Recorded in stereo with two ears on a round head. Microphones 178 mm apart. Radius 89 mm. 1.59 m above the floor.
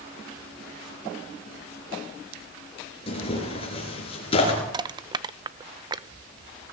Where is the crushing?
20° right (ahead or behind), 0.7 m.